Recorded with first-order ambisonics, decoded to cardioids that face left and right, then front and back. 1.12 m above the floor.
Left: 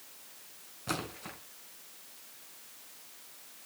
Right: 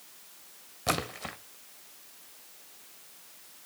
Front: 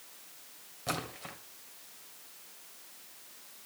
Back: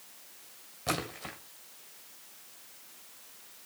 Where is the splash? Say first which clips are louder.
Right 6 dB, back 3 dB; 105° right, 1.7 m.